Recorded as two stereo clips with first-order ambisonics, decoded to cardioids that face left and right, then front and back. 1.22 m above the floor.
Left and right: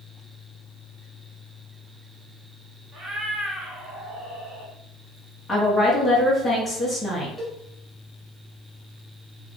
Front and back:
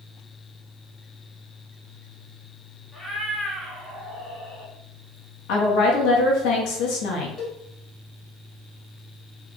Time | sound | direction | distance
2.9 | a cat meowing | 55° right | 1.4 m
5.5 | a woman speaking | 5° left | 0.9 m
7.4 | a cowbell | 30° right | 1.0 m